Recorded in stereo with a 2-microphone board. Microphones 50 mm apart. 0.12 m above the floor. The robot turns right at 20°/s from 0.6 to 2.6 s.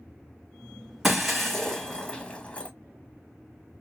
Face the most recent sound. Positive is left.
turn(degrees=30)  # may be behind; listen again after turning